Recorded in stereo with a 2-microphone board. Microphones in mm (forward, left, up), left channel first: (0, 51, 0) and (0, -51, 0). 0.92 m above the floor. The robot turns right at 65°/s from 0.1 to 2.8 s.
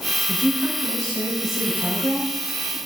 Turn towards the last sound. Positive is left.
turn(degrees=-35)